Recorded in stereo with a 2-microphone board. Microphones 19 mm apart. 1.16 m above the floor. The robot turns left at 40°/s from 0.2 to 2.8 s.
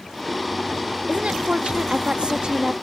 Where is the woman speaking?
80° right; by 2.7 s 145° right.